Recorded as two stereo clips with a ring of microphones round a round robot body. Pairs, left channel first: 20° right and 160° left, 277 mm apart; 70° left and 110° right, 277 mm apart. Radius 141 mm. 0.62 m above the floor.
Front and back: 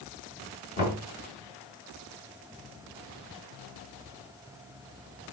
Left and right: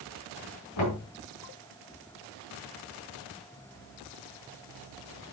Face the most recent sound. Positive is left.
turn(degrees=35)